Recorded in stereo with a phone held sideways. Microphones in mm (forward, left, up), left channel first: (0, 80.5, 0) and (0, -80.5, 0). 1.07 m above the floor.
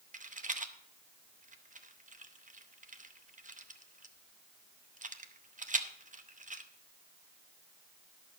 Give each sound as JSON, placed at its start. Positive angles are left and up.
{"t": 0.1, "sound": "a rattle", "side_deg": -55, "distance_m": 0.7}